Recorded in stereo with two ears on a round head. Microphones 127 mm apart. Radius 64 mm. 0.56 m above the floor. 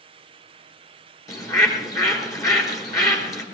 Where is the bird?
25° left (ahead or behind), 4.5 m.